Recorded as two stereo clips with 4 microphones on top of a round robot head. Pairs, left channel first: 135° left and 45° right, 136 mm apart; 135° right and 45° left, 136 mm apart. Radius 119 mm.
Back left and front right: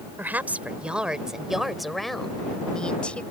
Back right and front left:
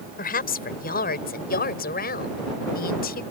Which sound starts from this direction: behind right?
A woman speaking, at 0.2 s.